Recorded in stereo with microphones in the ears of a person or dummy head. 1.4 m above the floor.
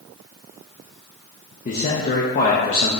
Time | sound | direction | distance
1.6 | a man speaking | 35° left (ahead or behind) | 0.7 m